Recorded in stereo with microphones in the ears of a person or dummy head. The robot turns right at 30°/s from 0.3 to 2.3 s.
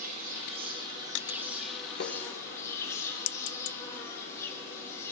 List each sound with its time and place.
0.0 s an insect: 40° right, 1.2 m; by 5.1 s 20° left, 1.2 m
2.0 s tapping: 55° left (ahead or behind), 0.6 m